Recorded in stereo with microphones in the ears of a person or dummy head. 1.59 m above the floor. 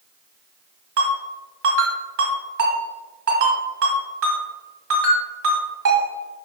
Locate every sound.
1.0 s a ringtone: 65° right (ahead or behind), 1.5 m